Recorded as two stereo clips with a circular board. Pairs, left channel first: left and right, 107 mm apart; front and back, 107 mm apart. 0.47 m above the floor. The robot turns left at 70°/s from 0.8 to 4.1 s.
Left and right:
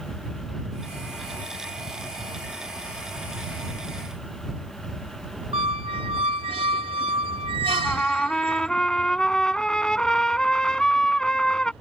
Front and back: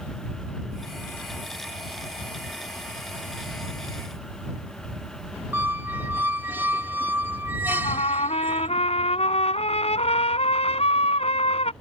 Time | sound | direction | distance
5.5 | a squeak | 110° right | ?
7.7 | a trumpet | 5° left | ?